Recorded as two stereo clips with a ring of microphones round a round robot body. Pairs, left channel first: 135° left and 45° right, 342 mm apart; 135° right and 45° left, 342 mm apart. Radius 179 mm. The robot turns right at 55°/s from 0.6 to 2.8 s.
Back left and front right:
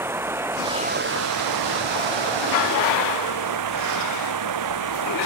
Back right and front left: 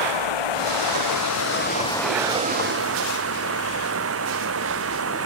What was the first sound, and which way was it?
Running water, 130° right.